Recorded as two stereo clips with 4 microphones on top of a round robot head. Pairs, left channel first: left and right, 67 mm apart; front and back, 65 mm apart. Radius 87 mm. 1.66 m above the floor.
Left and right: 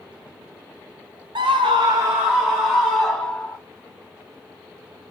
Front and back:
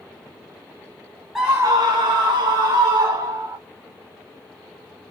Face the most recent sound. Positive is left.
turn(degrees=165)